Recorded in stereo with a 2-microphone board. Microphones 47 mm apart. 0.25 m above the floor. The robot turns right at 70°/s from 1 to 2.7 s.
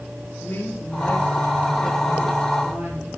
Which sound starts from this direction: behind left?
A woman speaking, at 0.4 s.